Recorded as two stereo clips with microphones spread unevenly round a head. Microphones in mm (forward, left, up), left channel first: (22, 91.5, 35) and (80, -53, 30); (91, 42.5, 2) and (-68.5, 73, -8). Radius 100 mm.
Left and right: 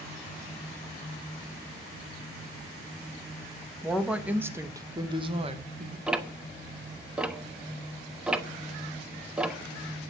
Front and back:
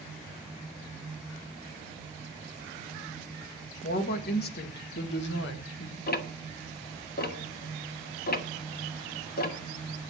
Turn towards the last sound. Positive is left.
turn(degrees=15)